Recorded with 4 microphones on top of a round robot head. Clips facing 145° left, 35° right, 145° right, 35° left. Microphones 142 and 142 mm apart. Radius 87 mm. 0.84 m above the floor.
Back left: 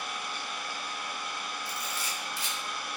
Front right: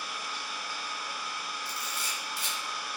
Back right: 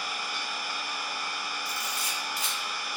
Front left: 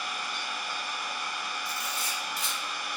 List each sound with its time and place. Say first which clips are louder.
0.0 s an engine running: back left 2 dB, even; 130° left, 0.8 m
1.6 s a camera shutter: back left 2 dB, even; 175° left, 1.5 m